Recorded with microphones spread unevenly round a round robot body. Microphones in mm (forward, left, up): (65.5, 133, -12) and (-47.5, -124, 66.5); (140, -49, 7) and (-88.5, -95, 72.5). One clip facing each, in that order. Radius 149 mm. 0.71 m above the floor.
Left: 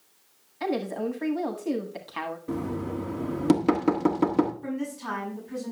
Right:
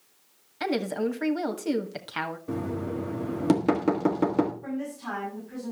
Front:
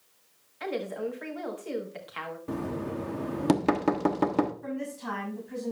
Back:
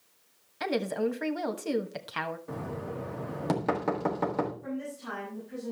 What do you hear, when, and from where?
0.6 s a woman speaking: 175° right, 1.2 m
2.5 s knocking: 10° right, 1.5 m
4.6 s a woman speaking: 10° left, 6 m